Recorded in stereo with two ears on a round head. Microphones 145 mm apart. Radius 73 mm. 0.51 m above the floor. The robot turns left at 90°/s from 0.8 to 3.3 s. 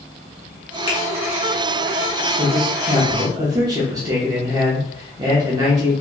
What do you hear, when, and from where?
0.9 s a finger snap: 30° left (ahead or behind), 1.4 m; by 1.0 s 25° left (ahead or behind), 1.4 m
2.4 s a man speaking: 60° right, 0.9 m; by 5.9 s 140° right, 0.9 m